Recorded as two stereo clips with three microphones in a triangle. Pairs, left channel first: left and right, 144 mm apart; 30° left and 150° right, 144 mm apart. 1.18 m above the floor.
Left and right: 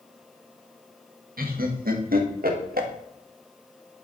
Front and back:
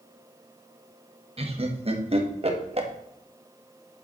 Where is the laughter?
100° right, 1.4 m.